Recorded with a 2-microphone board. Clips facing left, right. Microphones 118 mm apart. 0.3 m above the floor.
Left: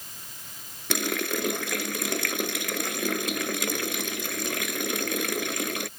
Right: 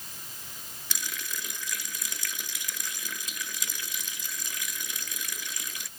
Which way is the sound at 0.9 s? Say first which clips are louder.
Left 14 dB; 70° left (ahead or behind).